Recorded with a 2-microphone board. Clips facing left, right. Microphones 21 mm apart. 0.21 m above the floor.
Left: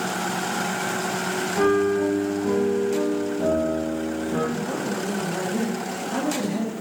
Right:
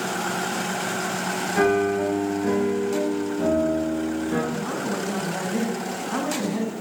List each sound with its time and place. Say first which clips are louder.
1.6 s a piano: even; 70° right (ahead or behind), 2.5 m
4.5 s a man speaking: even; 50° right (ahead or behind), 1.9 m